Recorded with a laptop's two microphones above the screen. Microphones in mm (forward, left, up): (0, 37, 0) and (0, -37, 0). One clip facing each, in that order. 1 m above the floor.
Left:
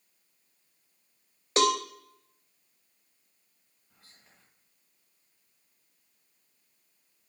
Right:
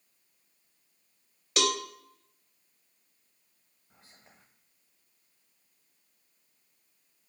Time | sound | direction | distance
1.6 | a cowbell | 35° left (ahead or behind) | 0.8 m
3.9 | whispering | 25° right (ahead or behind) | 1.1 m